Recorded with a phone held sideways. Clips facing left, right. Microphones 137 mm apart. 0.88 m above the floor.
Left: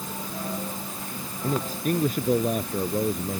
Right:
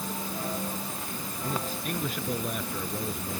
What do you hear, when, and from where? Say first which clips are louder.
1.4 s a man speaking: left 7 dB; 40° left (ahead or behind)